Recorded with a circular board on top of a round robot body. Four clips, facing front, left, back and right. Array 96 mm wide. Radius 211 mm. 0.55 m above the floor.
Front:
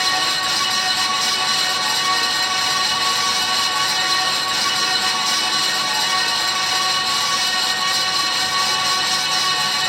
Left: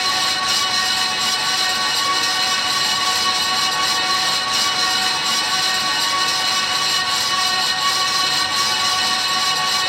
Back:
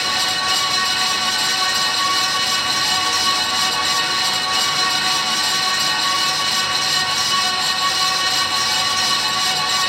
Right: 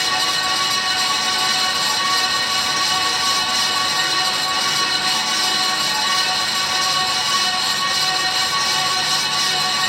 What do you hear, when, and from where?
Only background noise.